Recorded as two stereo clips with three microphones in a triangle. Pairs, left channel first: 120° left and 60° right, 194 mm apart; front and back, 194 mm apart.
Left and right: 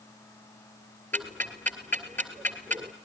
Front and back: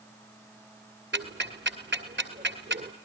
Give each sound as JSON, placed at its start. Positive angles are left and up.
{"t": 1.1, "sound": "ticking", "azimuth_deg": -160, "distance_m": 1.8}